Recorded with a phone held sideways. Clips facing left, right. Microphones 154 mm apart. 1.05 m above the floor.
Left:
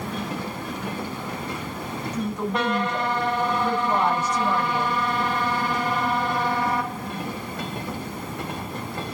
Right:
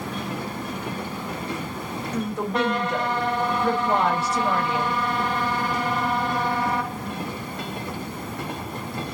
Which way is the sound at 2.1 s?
80° right.